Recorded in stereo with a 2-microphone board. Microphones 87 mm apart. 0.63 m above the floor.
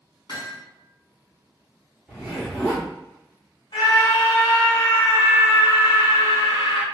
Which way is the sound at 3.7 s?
60° left (ahead or behind).